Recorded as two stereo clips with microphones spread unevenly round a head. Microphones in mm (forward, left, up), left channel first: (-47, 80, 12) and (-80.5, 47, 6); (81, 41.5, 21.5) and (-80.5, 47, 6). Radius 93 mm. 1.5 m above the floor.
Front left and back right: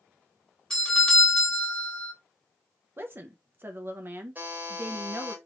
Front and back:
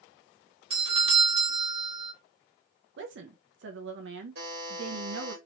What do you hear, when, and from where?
0.7 s a doorbell: 120° left, 1.4 m
3.0 s a woman speaking: straight behind, 0.6 m
4.3 s a buzzer: 175° left, 1.6 m